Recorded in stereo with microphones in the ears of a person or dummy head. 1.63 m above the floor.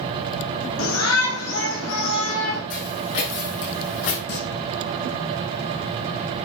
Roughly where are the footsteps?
Left.